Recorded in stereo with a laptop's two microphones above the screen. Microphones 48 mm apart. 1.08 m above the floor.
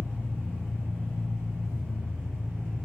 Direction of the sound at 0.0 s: 75° right (ahead or behind).